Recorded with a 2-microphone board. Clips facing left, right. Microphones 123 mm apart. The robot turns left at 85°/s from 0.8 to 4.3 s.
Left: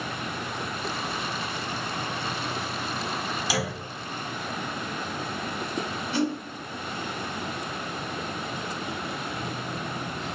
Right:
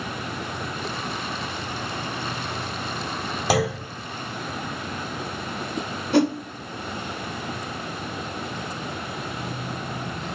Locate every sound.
3.5 s a clunk: 55° right (ahead or behind), 1.8 m; by 3.9 s 70° right (ahead or behind), 1.8 m
6.1 s a whoosh: 65° right (ahead or behind), 1.1 m